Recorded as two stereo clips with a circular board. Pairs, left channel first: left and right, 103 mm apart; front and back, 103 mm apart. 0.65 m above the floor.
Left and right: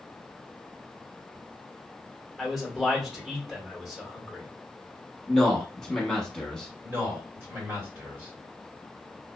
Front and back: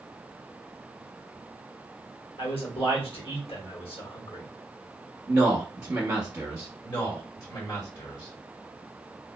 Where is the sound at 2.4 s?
Straight ahead, 1.5 m.